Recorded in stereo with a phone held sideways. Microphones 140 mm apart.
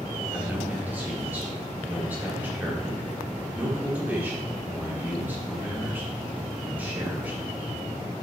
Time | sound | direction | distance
0.3 | a man speaking | 15° right (ahead or behind) | 2.5 m